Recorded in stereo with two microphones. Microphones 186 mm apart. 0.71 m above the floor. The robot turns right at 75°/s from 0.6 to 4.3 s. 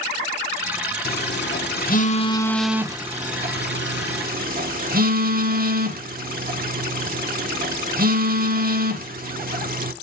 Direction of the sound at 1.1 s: 55° left (ahead or behind).